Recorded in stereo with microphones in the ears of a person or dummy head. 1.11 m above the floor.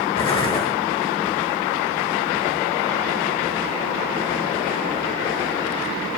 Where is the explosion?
35° left (ahead or behind), 1.5 m.